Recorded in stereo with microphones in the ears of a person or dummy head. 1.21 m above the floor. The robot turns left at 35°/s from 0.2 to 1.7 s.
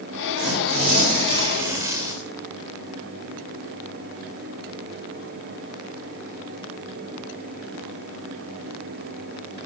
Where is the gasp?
No gasp in this recording.